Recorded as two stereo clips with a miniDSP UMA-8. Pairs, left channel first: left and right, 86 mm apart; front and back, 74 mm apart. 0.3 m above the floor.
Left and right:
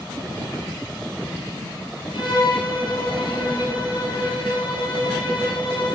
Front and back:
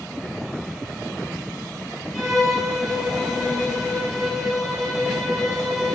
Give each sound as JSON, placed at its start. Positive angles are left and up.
{"t": 2.1, "sound": "a violin", "azimuth_deg": 95, "distance_m": 8.5}